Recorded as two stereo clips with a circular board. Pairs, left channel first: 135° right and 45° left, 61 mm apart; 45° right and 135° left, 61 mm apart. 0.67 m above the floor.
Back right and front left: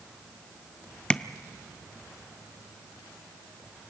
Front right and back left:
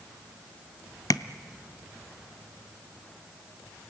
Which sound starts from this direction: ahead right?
Tapping, at 1.1 s.